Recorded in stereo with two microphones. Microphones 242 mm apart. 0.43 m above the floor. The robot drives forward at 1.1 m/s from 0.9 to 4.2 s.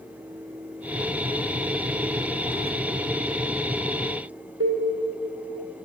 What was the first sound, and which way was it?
Keys jangling, 30° left (ahead or behind).